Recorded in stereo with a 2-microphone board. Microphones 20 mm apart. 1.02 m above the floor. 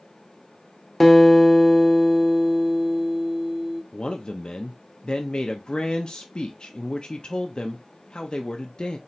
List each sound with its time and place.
1.0 s a guitar: 5° left (ahead or behind), 0.7 m
3.9 s a man speaking: 45° left (ahead or behind), 0.5 m